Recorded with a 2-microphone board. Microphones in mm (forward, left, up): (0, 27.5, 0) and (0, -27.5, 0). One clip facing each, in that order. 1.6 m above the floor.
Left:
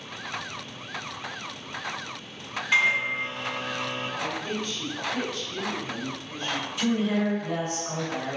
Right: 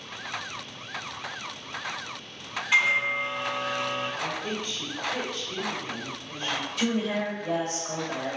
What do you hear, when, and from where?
2.7 s a microwave: 5° right (ahead or behind), 1.3 m
4.2 s a woman speaking: 40° right (ahead or behind), 1.2 m
6.8 s a woman speaking: 65° right (ahead or behind), 1.6 m